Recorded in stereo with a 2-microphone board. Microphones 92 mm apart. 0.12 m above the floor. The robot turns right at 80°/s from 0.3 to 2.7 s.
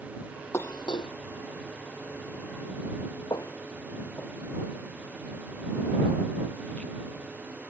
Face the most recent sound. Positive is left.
turn(degrees=10)  # may be behind; listen again after turning